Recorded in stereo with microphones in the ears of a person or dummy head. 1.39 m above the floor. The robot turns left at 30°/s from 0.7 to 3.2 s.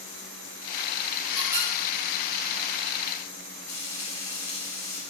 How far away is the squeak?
About 4 m.